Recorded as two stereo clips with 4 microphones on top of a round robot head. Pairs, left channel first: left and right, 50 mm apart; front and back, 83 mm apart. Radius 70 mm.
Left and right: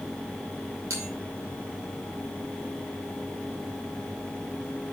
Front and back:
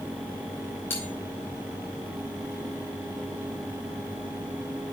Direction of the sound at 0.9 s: 65° right.